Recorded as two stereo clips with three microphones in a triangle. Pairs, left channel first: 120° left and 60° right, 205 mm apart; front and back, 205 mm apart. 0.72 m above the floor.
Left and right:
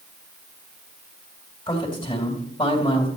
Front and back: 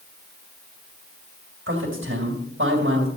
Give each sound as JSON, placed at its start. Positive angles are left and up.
{"t": 1.7, "sound": "a man speaking", "azimuth_deg": -175, "distance_m": 2.5}